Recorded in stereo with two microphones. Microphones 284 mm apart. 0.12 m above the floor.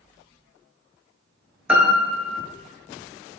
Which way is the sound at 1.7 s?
5° right (ahead or behind).